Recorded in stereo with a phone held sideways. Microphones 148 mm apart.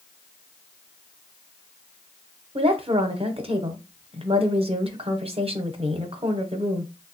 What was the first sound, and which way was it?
A woman speaking, 40° right (ahead or behind).